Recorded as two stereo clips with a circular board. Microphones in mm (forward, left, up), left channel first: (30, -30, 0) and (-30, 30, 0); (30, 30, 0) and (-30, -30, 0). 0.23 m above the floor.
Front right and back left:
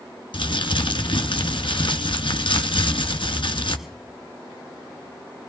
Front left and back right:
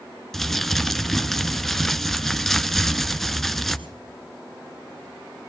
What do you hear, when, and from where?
0.3 s crumpling: 40° right, 0.8 m